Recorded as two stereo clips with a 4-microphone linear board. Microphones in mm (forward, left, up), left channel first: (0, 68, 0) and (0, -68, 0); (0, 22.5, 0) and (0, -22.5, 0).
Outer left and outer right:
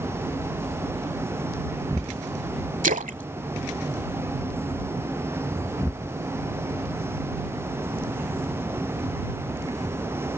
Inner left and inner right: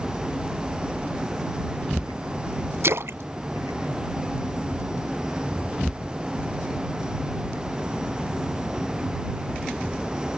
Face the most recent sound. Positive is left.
turn(degrees=-75)  # may be behind; listen again after turning